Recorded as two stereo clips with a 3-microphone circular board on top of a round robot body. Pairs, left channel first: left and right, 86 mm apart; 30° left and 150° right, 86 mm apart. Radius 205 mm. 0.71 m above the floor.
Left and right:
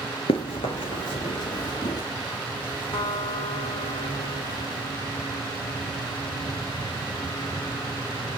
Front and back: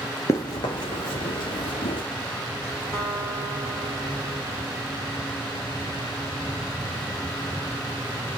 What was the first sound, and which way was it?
Running footsteps, 85° left.